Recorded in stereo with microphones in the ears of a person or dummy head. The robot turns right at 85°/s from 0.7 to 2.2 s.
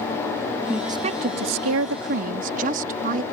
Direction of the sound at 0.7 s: Straight behind.